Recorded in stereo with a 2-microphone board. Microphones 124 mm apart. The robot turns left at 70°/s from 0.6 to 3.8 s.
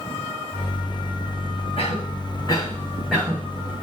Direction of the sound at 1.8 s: 55° left (ahead or behind).